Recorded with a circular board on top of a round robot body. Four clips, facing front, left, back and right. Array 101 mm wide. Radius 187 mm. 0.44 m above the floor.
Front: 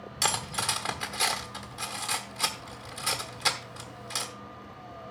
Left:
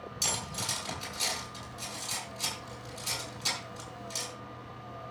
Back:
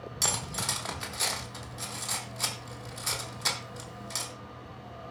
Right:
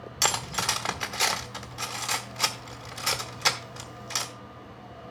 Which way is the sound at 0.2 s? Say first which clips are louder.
Right 10 dB, front 5 dB; 75° right.